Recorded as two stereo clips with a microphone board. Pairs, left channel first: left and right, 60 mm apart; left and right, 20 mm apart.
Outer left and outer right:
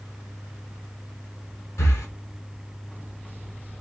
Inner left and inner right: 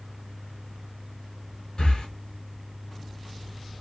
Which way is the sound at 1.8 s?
55° left (ahead or behind).